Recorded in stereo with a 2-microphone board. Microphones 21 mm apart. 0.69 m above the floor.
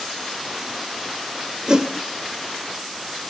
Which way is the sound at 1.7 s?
35° right (ahead or behind).